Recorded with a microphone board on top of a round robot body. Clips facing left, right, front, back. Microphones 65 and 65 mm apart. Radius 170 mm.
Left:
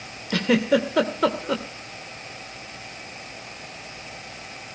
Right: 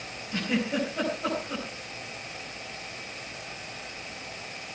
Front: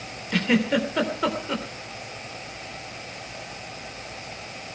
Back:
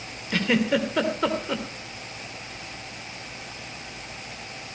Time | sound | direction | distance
0.3 | a giggle | 90° left | 2.5 m